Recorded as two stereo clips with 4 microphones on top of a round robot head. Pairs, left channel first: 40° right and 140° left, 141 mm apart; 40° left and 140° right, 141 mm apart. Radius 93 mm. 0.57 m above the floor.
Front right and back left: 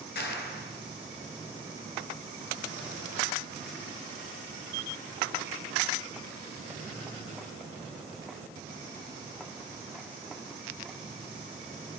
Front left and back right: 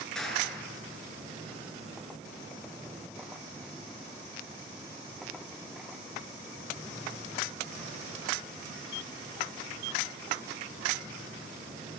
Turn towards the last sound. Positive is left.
turn(degrees=-45)